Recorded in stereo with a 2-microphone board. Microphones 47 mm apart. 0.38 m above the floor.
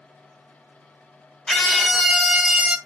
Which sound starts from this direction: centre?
A scream, at 1.5 s.